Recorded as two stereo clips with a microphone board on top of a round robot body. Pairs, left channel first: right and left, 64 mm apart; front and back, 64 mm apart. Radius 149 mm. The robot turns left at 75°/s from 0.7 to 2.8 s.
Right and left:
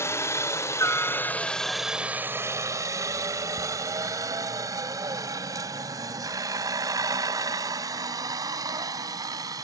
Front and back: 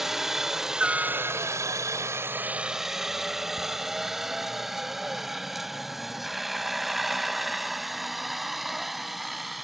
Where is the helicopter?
95° right; by 9.6 s 95° left.